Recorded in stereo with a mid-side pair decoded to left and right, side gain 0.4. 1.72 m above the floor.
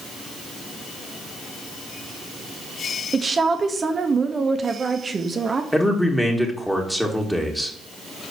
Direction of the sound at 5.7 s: 5° left.